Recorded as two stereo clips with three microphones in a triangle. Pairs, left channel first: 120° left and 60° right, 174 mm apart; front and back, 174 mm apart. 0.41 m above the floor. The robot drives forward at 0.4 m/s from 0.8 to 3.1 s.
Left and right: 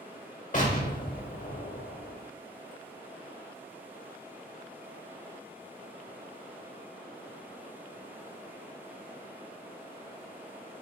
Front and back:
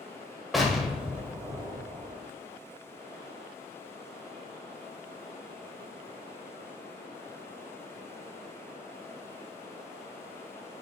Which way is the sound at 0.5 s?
90° left.